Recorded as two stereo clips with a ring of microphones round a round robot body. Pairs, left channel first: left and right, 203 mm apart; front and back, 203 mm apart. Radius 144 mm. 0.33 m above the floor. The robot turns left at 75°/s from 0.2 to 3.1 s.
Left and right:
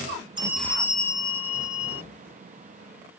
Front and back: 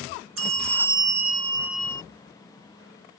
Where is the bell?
165° right; by 2.0 s 75° left.